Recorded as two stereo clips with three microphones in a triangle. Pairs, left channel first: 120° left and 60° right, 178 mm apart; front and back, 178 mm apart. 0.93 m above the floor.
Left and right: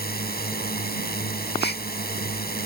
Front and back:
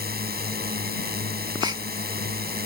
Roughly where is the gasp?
Behind left.